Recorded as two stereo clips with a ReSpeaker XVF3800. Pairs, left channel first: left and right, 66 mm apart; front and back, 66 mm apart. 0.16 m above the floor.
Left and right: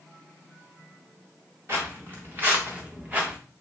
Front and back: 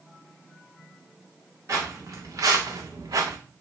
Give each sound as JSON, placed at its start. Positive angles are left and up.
{"t": 1.7, "sound": "footsteps", "azimuth_deg": -145, "distance_m": 1.6}